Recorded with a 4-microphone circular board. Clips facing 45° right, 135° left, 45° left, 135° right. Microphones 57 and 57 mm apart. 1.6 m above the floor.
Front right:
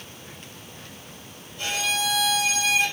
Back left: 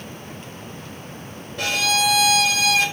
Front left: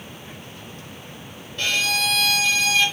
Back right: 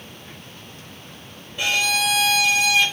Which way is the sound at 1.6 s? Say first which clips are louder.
Back left 6 dB, back right 2 dB; 145° left.